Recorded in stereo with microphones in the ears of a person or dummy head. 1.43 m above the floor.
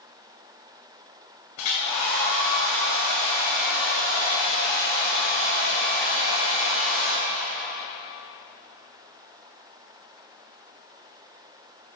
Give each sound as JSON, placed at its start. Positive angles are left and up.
{"t": 1.6, "sound": "a hair dryer", "side_deg": 60, "distance_m": 2.0}